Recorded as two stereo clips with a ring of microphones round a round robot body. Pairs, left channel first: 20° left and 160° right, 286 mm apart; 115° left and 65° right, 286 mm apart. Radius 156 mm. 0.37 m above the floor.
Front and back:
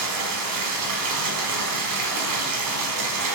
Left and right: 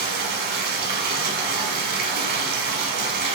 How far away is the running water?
About 0.7 m.